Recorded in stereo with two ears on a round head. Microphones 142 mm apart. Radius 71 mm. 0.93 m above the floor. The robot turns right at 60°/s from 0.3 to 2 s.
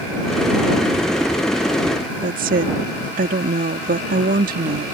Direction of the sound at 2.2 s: 60° right (ahead or behind).